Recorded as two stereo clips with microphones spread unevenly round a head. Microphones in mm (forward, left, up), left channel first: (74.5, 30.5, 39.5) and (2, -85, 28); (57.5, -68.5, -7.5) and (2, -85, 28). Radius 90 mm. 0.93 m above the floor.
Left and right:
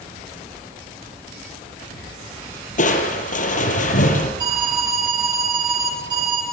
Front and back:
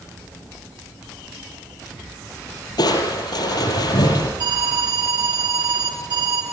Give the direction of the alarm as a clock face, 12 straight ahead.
6 o'clock.